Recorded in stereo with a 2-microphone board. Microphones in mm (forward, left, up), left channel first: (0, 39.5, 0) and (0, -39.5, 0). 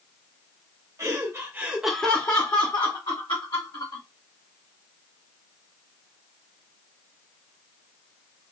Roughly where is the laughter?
Right.